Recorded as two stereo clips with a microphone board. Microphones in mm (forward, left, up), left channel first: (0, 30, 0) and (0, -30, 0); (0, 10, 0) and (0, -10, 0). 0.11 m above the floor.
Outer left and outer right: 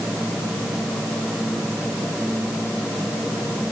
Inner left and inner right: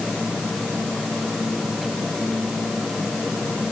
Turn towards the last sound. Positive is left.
No sound to turn to.